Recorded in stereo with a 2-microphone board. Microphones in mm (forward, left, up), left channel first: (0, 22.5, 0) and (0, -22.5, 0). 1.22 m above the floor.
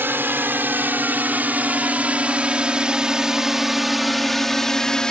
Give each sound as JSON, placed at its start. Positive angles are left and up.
{"t": 0.0, "sound": "a drone", "side_deg": -45}